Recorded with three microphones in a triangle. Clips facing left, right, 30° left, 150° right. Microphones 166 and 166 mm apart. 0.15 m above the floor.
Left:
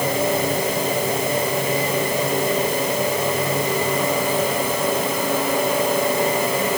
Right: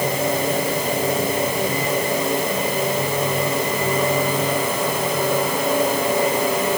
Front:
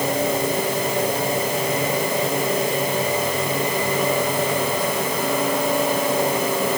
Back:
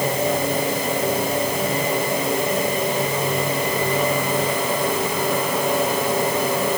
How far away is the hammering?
I don't hear hammering.